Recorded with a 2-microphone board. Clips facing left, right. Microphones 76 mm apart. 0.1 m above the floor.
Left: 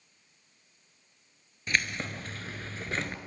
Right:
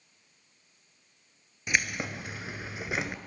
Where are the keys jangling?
15° right (ahead or behind), 1.2 m; by 3.2 s 10° right (ahead or behind), 1.1 m.